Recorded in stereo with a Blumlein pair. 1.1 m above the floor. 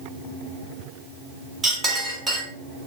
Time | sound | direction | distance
1.6 | a clink | 10° right | 2.0 m